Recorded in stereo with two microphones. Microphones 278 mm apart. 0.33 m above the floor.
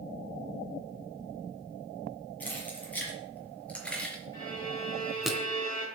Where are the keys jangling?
5° left (ahead or behind), 6 m; by 5.3 s centre (ahead or behind), 2.5 m.